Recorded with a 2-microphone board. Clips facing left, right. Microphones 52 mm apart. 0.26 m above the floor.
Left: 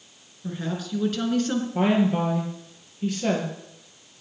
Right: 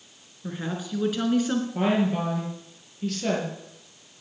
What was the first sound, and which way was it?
A woman speaking, 15° right (ahead or behind).